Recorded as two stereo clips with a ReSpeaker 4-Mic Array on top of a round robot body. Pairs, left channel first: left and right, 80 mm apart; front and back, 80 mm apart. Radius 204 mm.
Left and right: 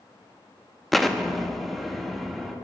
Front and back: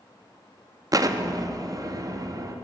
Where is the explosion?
Straight behind, 0.8 m.